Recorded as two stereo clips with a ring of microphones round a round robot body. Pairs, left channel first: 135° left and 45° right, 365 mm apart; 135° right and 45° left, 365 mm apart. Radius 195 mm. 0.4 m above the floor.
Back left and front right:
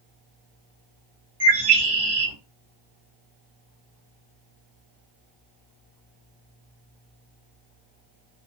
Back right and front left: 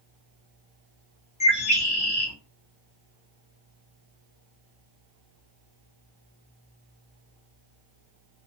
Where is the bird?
60° right, 2 m.